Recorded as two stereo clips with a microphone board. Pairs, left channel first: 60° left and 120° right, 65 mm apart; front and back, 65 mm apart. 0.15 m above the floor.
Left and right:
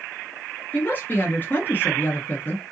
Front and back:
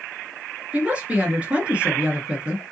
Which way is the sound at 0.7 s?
115° left.